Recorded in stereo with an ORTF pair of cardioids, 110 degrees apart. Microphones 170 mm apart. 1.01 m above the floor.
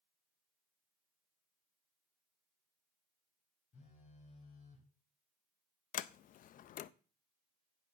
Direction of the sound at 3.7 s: 45° left.